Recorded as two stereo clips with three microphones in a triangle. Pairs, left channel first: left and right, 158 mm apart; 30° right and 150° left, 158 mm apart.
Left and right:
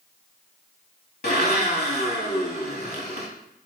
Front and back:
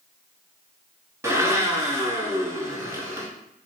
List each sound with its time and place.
1.2 s a blender: 80° left, 0.9 m